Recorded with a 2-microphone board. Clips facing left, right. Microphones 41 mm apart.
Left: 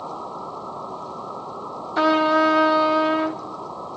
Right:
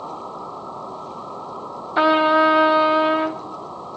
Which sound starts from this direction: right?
A trumpet, at 2.0 s.